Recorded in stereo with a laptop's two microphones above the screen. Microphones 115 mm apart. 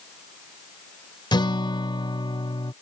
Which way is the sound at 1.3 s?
40° left (ahead or behind).